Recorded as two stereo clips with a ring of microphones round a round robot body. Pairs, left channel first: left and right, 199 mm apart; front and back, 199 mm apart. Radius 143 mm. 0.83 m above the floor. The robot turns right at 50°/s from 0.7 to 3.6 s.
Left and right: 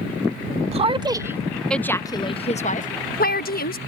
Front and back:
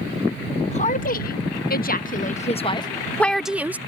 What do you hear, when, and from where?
0.7 s a woman speaking: 45° right; by 3.8 s 100° left